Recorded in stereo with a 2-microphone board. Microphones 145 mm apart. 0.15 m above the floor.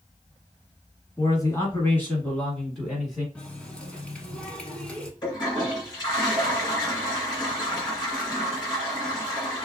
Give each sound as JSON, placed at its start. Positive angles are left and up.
{"t": 1.2, "sound": "a man speaking", "side_deg": 25, "distance_m": 1.4}
{"t": 3.4, "sound": "a running tap", "side_deg": 5, "distance_m": 0.8}
{"t": 5.2, "sound": "a toilet flushing", "side_deg": 30, "distance_m": 1.8}